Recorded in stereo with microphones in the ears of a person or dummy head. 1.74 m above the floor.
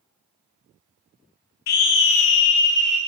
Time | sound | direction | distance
1.7 | a scream | 55° left (ahead or behind) | 1.1 m